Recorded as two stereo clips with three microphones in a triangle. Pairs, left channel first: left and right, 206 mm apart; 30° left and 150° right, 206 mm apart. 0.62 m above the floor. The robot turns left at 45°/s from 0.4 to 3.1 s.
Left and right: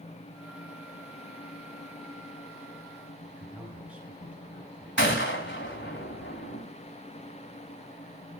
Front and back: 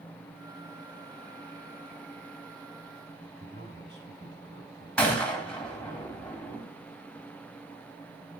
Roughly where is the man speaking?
Behind.